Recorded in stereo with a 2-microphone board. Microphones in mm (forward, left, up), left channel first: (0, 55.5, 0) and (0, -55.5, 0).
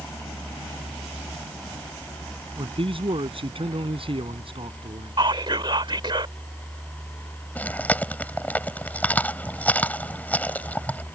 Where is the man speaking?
55° right (ahead or behind).